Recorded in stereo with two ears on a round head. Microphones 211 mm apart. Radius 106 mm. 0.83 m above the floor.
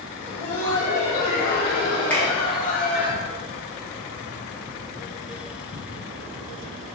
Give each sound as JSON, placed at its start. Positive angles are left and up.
{"t": 0.2, "sound": "laughter", "side_deg": 70, "distance_m": 2.5}
{"t": 2.1, "sound": "a finger snap", "side_deg": 10, "distance_m": 2.5}